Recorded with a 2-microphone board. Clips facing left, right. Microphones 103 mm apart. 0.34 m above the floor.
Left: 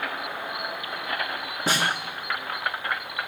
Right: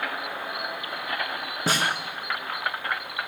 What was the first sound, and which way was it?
A snare drum, 40° right (ahead or behind).